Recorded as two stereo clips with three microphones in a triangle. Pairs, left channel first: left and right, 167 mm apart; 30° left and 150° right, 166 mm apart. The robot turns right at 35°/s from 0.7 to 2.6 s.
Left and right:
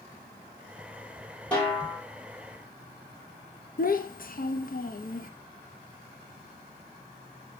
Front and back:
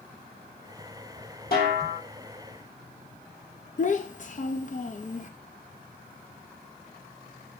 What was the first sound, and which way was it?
A snare drum, 5° left.